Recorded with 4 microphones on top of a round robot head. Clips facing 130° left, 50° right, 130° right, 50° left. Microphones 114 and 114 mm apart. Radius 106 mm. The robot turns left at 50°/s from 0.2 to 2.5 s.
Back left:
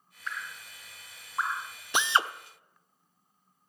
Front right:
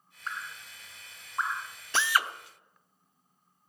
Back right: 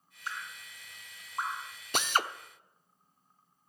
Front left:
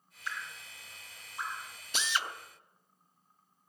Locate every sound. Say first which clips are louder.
0.3 s dripping: even, even; 90° right, 1.8 m; by 1.8 s 165° right, 1.8 m
1.9 s a drill: back left 1 dB, back right 5 dB; 155° right, 0.9 m; by 2.3 s 175° right, 0.9 m